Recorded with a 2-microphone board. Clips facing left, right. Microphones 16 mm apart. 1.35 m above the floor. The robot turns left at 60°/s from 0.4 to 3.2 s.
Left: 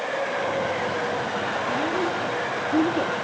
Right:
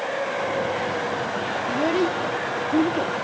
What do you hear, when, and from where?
1.7 s a child speaking: 65° right (ahead or behind), 1.5 m; by 3.1 s 10° left (ahead or behind), 1.5 m